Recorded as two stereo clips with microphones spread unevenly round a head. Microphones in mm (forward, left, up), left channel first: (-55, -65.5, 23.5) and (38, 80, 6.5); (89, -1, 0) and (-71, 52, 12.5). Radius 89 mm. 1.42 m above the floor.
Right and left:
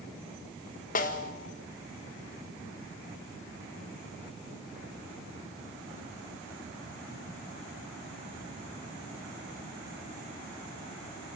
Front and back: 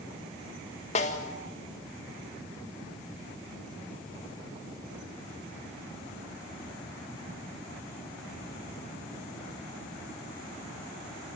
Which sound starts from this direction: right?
A snare drum, at 0.9 s.